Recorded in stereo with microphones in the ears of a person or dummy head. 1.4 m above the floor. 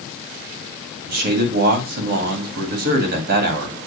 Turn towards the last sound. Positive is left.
turn(degrees=-55)  # may be behind; listen again after turning